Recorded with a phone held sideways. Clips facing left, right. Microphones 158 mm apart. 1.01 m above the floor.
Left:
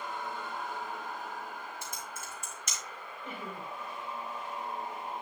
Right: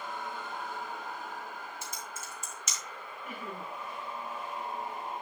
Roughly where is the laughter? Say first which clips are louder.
Even; left.